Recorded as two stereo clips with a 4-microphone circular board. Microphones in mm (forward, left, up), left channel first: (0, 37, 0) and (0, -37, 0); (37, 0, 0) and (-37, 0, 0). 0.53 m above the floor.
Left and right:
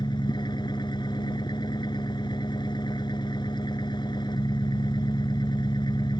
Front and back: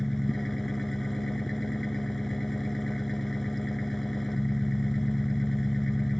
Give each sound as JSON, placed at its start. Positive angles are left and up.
{"t": 0.0, "sound": "an engine running", "azimuth_deg": 85}